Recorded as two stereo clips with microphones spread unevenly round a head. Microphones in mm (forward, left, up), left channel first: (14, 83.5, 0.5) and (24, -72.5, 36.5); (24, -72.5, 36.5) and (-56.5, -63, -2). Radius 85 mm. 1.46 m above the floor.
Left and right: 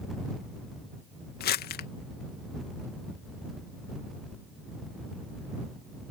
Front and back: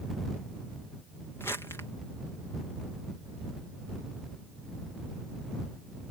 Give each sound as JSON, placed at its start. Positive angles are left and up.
{"t": 1.4, "sound": "crumpling", "azimuth_deg": 65}